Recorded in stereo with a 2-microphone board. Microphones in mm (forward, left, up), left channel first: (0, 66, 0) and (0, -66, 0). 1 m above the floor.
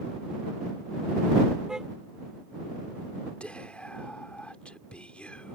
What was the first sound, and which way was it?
A car horn, 5° right (ahead or behind).